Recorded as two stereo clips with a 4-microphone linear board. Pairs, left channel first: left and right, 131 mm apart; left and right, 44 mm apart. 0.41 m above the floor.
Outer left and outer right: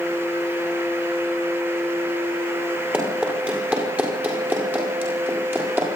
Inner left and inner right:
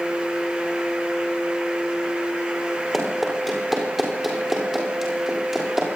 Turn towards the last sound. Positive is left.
turn(degrees=-15)  # may be behind; listen again after turning